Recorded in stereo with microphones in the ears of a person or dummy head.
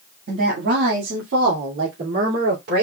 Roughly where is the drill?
I don't hear a drill.